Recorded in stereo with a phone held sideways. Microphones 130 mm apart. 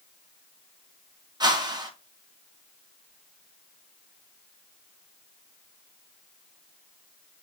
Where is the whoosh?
35° right (ahead or behind), 0.8 m.